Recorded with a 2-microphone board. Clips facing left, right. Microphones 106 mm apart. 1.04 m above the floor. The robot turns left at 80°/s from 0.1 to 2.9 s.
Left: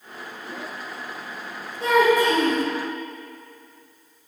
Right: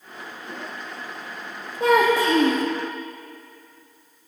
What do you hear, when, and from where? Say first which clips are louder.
1.8 s a child speaking: even; 45° right, 0.9 m; by 2.6 s 110° right, 0.9 m